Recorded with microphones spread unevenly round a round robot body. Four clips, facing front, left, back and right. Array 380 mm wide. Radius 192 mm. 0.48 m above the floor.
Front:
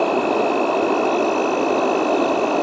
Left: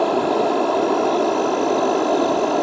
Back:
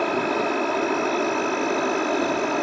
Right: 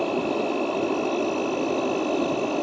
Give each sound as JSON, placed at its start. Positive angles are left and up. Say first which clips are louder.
{"t": 0.0, "sound": "an insect", "louder": "left 7 dB, front 5 dB", "azimuth_deg": 45}